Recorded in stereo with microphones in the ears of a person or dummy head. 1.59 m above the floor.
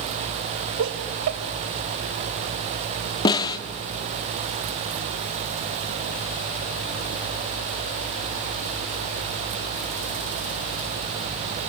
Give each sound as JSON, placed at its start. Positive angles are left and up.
{"t": 0.8, "sound": "laughter", "side_deg": -70, "distance_m": 2.5}
{"t": 3.2, "sound": "a snare drum", "side_deg": 25, "distance_m": 1.7}